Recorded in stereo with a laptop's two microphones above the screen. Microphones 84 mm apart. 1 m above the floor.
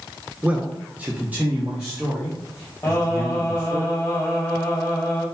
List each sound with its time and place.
0.4 s a man speaking: 10° right (ahead or behind), 0.6 m
2.8 s singing: 40° left (ahead or behind), 1.4 m